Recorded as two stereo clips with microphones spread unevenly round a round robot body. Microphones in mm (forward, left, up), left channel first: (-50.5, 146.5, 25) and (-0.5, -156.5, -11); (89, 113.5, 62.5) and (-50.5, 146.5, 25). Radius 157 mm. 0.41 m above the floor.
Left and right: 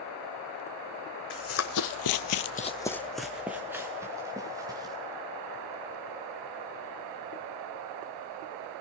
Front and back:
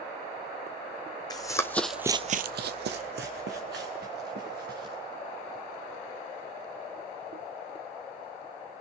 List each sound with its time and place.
1.3 s running footsteps: 45° left, 1.6 m; by 5.0 s 160° right, 4 m